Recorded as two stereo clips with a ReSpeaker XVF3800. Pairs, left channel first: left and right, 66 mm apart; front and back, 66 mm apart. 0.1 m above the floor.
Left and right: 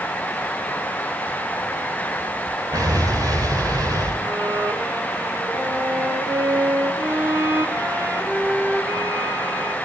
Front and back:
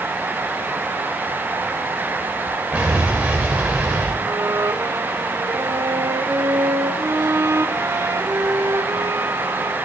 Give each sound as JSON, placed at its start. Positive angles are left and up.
{"t": 2.7, "sound": "an explosion", "azimuth_deg": -105, "distance_m": 8.0}
{"t": 4.2, "sound": "a violin", "azimuth_deg": -140, "distance_m": 4.0}